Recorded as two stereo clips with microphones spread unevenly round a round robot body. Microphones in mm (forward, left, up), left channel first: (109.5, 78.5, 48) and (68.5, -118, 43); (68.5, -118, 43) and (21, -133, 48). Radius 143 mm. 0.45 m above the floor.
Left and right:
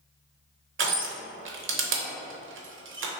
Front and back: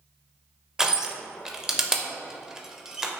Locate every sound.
0.8 s crushing: 80° right, 0.8 m